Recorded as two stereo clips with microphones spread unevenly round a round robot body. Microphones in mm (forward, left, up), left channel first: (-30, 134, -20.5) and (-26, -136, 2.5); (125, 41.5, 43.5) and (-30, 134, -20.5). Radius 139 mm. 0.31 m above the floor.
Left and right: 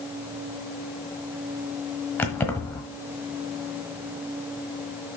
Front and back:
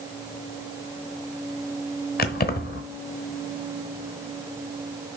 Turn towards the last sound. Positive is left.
turn(degrees=15)